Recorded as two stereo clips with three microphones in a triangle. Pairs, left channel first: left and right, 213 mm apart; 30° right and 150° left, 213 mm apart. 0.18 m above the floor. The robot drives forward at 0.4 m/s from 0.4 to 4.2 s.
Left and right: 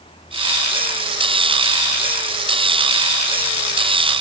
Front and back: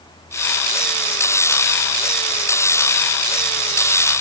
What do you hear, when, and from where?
Only background noise.